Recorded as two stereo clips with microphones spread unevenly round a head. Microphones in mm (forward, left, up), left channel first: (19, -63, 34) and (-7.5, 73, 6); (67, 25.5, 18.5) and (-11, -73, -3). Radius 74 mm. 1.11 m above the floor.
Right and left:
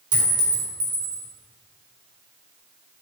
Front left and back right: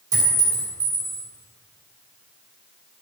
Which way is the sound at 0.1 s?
160° left.